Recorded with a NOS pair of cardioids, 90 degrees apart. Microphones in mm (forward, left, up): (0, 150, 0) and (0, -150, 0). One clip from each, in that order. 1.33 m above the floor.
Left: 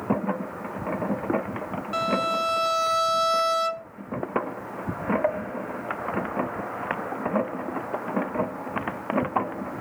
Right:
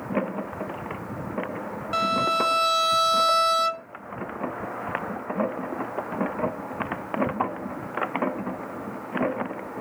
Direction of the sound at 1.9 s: 20° right.